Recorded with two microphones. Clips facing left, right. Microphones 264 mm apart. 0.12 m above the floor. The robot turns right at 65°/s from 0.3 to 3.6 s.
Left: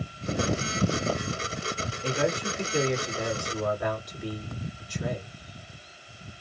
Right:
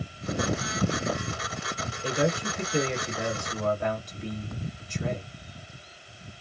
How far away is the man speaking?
About 2.0 m.